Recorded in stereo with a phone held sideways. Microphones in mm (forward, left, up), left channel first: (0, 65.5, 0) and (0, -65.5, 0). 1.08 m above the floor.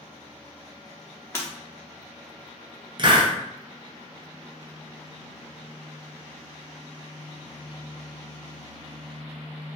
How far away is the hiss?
About 0.6 m.